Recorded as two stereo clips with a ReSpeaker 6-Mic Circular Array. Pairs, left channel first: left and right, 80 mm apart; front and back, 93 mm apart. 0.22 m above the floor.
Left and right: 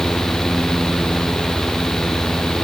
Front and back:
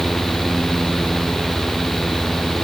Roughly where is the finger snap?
I don't hear a finger snap.